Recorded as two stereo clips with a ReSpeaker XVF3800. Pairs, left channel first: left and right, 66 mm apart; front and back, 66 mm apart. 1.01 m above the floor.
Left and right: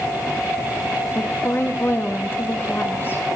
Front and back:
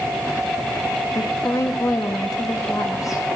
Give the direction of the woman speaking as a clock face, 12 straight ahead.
11 o'clock.